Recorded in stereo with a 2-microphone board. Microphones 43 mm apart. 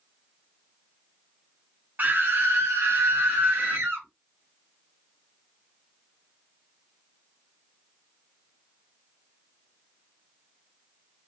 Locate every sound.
2.0 s a scream: 40° right (ahead or behind), 0.9 m; by 4.1 s 45° right (ahead or behind), 1.3 m